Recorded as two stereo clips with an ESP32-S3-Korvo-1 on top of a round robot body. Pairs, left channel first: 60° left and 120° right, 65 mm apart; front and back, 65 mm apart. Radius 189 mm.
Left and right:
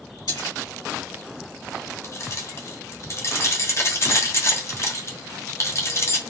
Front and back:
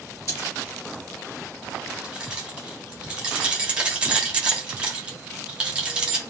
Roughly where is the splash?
Ahead left.